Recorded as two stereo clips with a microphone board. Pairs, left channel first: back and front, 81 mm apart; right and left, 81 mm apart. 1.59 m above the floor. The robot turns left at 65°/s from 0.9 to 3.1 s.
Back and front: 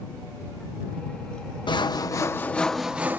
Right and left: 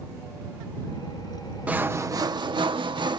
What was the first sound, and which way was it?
Sawing, 165° left.